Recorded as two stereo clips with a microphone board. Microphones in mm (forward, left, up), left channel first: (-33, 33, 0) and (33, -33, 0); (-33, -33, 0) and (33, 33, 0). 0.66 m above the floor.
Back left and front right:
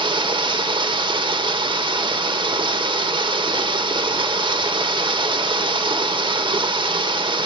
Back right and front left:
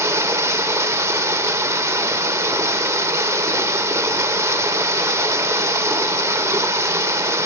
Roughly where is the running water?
Ahead.